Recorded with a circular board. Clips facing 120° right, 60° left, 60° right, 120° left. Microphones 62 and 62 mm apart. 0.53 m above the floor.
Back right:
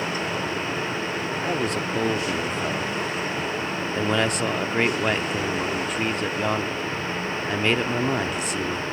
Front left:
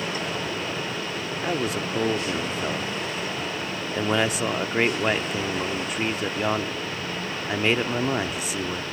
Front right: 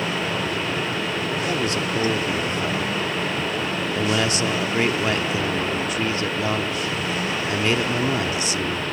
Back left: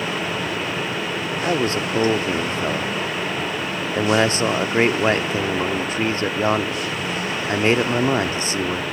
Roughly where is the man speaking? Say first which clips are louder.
Front left 1 dB, back left 6 dB; behind left.